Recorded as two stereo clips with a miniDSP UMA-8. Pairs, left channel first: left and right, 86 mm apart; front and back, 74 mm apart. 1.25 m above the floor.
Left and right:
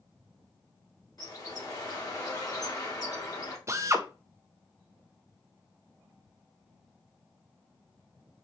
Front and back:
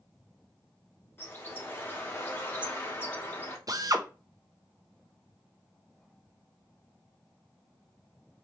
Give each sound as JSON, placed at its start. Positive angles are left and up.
{"t": 1.2, "sound": "a bird", "azimuth_deg": 55, "distance_m": 1.0}
{"t": 3.7, "sound": "a drill", "azimuth_deg": -145, "distance_m": 0.5}